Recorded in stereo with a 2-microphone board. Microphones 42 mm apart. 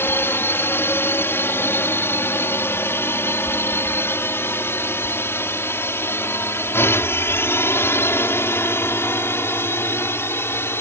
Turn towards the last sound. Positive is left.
turn(degrees=75)  # may be behind; listen again after turning